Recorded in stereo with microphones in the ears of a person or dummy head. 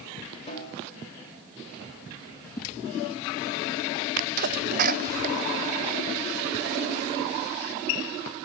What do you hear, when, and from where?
0.5 s a snare drum: 30° left (ahead or behind), 5 m
2.6 s a whoosh: 20° left (ahead or behind), 0.7 m
4.2 s a sneeze: 50° right (ahead or behind), 0.8 m